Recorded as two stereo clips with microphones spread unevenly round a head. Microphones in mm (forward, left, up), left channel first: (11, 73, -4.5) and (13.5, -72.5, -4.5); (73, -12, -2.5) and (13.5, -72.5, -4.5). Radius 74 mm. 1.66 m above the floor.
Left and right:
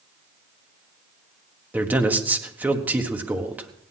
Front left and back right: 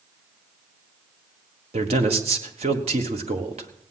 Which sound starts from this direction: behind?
A man speaking, at 1.7 s.